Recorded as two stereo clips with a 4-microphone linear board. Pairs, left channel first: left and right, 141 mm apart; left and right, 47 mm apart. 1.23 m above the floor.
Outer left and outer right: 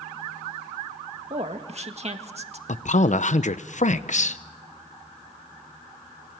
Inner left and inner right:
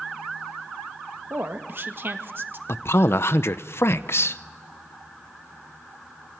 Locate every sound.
1.3 s a woman speaking: 50° right (ahead or behind), 1.8 m
2.7 s a man speaking: 60° left (ahead or behind), 0.8 m